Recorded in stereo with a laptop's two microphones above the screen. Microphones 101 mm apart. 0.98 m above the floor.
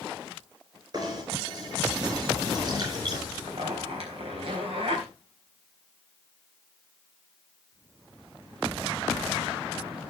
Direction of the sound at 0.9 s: 45° right (ahead or behind).